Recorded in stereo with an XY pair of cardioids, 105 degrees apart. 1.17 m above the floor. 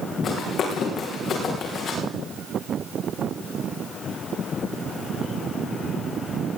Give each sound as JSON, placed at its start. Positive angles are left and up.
{"t": 0.2, "sound": "running footsteps", "azimuth_deg": 65, "distance_m": 4.5}